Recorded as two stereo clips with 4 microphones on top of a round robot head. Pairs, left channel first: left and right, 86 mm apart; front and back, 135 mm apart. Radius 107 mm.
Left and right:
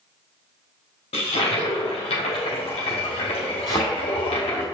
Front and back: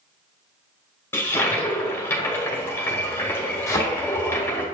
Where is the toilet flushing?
70° left, 1.4 m.